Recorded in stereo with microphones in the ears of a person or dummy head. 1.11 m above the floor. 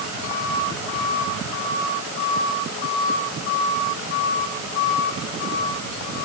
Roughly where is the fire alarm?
I don't hear a fire alarm.